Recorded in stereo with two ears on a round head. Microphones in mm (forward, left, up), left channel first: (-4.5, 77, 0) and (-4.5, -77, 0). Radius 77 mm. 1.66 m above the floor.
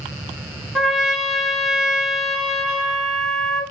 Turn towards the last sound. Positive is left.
turn(degrees=0)  # may be behind; listen again after turning